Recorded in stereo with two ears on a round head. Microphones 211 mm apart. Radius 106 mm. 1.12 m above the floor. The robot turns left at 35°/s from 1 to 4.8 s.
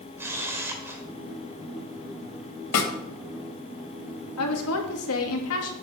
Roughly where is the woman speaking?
Left.